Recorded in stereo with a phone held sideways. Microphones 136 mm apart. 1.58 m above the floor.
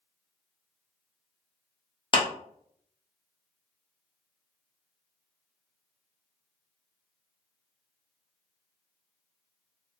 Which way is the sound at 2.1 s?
40° left (ahead or behind).